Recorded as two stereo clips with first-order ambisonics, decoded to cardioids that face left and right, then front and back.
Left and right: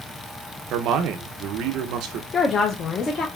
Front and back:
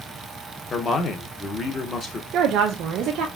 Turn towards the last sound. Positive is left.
turn(degrees=150)